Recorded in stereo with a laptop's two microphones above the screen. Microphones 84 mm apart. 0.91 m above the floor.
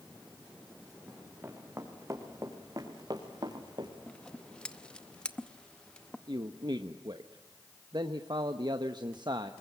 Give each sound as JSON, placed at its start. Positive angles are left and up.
{"t": 1.1, "sound": "running footsteps", "side_deg": -20, "distance_m": 5.0}
{"t": 4.1, "sound": "scissors", "side_deg": 10, "distance_m": 0.7}
{"t": 6.3, "sound": "a man speaking", "side_deg": -55, "distance_m": 1.1}